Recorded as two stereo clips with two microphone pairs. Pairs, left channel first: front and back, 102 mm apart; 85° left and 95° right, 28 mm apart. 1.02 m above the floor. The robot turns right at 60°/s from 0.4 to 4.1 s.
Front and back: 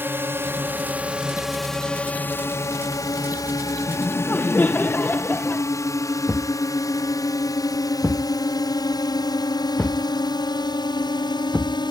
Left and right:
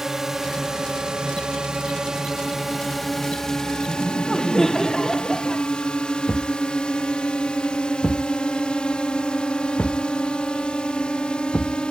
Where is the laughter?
10° left; by 5.7 s 25° left.